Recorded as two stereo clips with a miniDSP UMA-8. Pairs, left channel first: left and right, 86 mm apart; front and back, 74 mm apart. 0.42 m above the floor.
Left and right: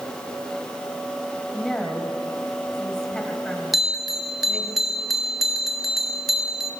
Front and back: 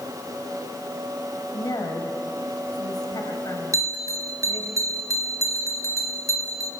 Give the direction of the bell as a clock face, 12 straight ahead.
6 o'clock.